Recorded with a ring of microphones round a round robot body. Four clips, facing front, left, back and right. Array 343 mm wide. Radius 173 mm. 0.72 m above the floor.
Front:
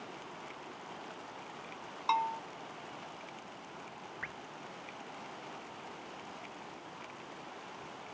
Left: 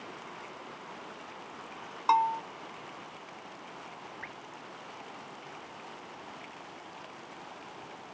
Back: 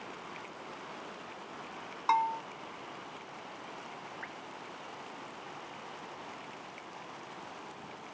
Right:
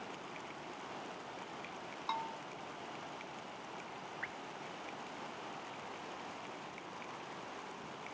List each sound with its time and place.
2.1 s a bell: 105° left
4.2 s dripping: 5° left